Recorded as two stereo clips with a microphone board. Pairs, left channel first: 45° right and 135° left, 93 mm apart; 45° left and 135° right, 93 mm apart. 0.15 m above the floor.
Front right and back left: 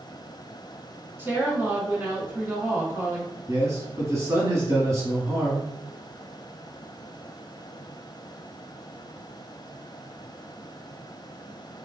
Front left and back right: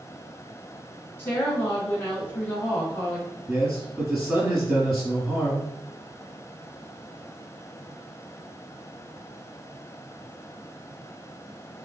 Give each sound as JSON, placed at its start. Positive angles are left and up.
{"t": 1.2, "sound": "a woman speaking", "azimuth_deg": 90, "distance_m": 1.1}
{"t": 3.5, "sound": "a man speaking", "azimuth_deg": 150, "distance_m": 1.3}